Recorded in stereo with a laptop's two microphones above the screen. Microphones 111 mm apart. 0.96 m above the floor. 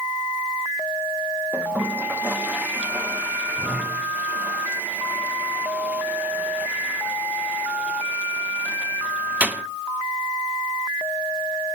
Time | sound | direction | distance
1.5 | a toilet flushing | 15° right (ahead or behind) | 0.8 m